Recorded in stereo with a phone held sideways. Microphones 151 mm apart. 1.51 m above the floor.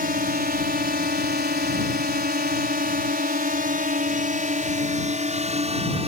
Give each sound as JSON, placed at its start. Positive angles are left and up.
{"t": 0.0, "sound": "a drone", "side_deg": -70}